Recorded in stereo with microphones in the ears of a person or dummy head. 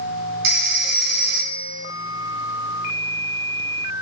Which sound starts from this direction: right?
A phone ringing, at 0.4 s.